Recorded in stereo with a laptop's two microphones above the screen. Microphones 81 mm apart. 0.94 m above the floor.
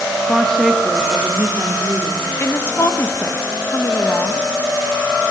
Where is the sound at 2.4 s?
30° left (ahead or behind), 1.3 m.